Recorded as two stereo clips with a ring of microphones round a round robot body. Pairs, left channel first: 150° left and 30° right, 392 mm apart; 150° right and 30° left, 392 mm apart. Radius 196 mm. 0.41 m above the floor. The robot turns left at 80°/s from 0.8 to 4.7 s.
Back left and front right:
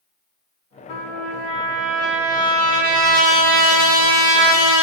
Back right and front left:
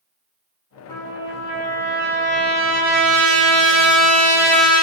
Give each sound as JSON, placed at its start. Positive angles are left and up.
{"t": 0.9, "sound": "a trumpet", "azimuth_deg": 135, "distance_m": 1.1}